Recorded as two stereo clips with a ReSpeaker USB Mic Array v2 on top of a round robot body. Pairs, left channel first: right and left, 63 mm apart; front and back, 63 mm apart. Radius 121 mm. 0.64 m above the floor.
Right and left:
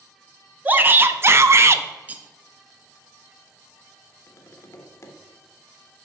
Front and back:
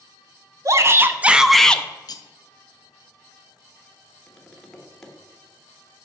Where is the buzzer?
No buzzer in this recording.